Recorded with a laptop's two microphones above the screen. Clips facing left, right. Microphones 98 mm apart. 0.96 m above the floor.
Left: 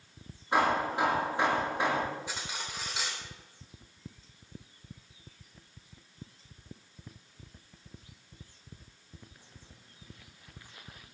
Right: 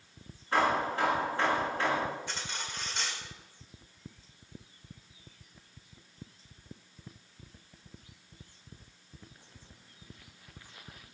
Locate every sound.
0.5 s hammering: 15° left (ahead or behind), 5 m
2.3 s cutlery clinking: 5° left (ahead or behind), 1.8 m